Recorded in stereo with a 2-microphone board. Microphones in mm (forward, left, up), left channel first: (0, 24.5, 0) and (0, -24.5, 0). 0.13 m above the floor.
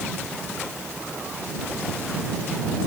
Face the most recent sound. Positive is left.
No sound to turn to.